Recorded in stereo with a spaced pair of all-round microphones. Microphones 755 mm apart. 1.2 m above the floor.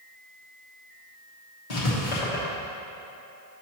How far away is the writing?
About 1.3 m.